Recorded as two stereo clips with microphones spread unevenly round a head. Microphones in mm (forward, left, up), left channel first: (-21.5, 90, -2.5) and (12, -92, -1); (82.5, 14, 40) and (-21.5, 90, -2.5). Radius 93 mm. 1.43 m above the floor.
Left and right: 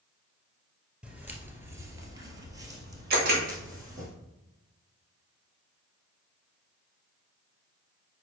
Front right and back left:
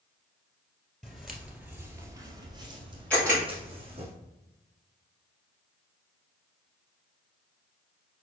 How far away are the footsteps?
About 1.5 m.